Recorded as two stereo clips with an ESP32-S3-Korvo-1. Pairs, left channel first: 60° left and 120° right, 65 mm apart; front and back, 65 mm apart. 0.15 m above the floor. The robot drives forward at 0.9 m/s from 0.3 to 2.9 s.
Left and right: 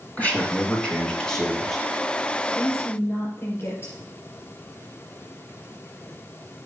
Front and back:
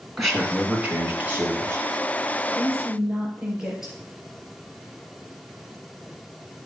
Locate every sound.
0.2 s a man speaking: 90° left, 1.7 m; by 1.8 s 150° left, 2 m
2.5 s a woman speaking: 95° left, 3.5 m; by 3.9 s 100° left, 3.5 m